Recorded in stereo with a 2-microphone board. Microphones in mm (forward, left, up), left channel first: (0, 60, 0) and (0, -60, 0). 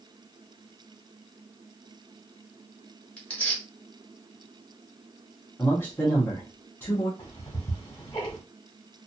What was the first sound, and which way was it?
Tearing paper, 10° left (ahead or behind).